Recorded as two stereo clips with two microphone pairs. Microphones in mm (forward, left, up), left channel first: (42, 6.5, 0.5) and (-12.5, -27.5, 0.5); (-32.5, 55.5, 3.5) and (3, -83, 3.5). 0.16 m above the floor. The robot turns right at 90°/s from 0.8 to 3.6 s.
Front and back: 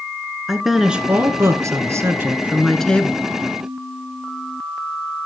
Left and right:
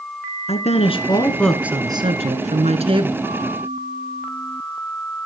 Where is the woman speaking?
130° left, 1.6 m; by 3.2 s 15° right, 1.6 m.